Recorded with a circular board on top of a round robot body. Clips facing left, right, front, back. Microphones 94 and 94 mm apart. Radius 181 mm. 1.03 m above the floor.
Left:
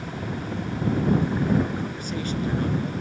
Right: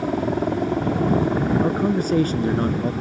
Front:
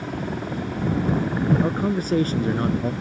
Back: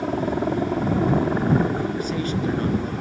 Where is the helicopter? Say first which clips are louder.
Right 10 dB, back 6 dB; 125° right; by 3.0 s 130° right.